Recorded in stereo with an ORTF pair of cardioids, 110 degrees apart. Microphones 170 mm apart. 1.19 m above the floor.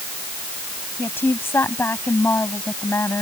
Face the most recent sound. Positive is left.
turn(degrees=15)